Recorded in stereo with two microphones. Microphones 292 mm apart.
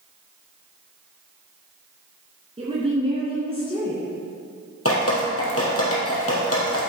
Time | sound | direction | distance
2.6 | a woman speaking | 20° right (ahead or behind) | 2 m
4.8 | dripping | 50° left (ahead or behind) | 3 m